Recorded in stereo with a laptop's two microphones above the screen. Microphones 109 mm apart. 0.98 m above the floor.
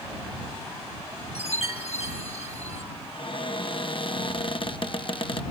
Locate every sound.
1.4 s a chime: 65° left (ahead or behind)
3.1 s a cupboard door: 50° left (ahead or behind)